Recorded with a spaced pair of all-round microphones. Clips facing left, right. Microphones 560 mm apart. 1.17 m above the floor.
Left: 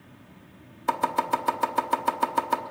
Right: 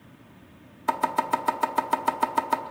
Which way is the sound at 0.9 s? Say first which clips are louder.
Even; 5° right (ahead or behind).